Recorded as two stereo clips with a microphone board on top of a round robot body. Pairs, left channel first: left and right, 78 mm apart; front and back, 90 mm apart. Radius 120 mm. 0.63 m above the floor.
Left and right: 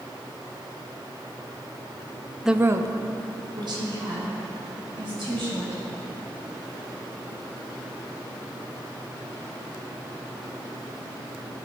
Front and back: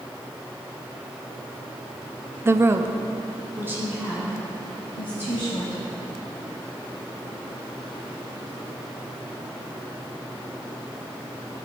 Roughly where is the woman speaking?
Behind.